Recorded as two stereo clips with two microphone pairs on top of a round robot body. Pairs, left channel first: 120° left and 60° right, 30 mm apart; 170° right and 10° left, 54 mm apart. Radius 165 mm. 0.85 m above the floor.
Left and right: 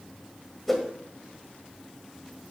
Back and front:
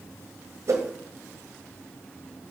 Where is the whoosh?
30° left, 1.4 m.